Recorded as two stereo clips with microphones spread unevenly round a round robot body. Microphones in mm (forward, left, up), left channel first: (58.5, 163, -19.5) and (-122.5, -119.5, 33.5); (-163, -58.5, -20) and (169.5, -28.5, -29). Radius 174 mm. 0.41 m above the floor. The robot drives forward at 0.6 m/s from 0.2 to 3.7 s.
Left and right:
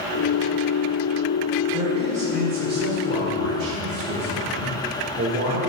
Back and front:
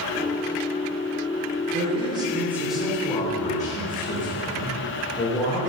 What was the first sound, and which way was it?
A man speaking, 40° right.